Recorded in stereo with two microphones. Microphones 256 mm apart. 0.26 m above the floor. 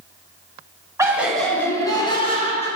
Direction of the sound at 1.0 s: 10° right (ahead or behind).